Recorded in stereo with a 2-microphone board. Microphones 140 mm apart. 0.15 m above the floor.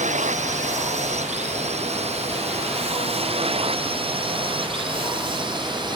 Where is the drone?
60° right (ahead or behind); by 6.0 s 35° right (ahead or behind).